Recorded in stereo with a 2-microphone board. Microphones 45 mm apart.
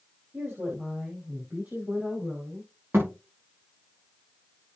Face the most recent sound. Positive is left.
turn(degrees=-50)  # may be behind; listen again after turning